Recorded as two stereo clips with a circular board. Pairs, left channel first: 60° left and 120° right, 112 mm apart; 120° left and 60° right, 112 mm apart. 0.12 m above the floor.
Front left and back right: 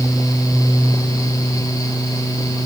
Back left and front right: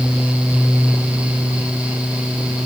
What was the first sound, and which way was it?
Only background noise.